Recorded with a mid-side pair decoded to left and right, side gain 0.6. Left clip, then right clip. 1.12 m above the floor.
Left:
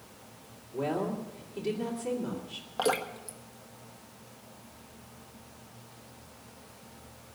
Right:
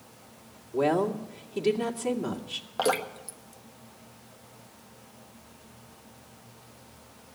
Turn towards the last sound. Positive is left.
turn(degrees=-15)